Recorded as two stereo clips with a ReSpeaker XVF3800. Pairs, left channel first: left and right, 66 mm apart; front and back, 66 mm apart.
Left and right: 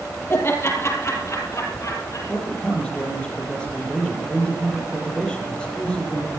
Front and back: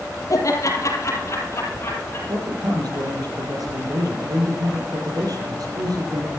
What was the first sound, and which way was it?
Laughter, 35° left.